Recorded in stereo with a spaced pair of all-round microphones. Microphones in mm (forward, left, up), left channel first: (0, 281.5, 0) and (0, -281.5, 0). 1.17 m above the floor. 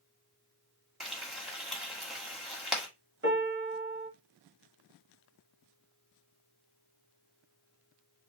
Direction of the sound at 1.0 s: Centre (ahead or behind).